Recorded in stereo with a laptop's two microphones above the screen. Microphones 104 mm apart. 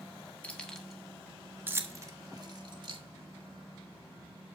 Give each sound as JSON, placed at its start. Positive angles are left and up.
{"t": 0.4, "sound": "keys jangling", "side_deg": 10, "distance_m": 1.3}